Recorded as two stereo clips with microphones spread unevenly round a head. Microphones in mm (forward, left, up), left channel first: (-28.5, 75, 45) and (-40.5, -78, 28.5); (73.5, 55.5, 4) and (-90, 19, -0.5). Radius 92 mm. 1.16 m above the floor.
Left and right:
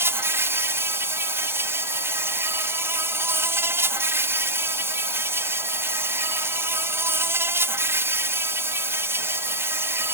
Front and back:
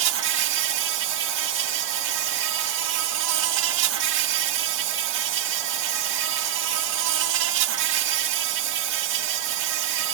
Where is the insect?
170° right.